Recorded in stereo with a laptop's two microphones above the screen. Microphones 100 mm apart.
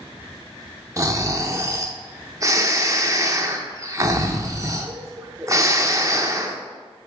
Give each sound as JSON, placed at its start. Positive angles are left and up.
{"t": 1.0, "sound": "snoring", "side_deg": -30, "distance_m": 0.6}